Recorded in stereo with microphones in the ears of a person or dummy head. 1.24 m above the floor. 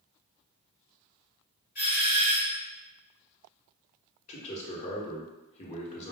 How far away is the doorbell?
About 1.3 m.